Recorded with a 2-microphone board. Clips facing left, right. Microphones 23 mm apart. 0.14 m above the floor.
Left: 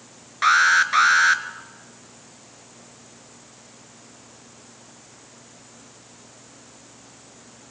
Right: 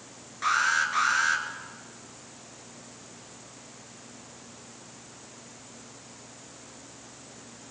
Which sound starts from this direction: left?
An alarm, at 0.4 s.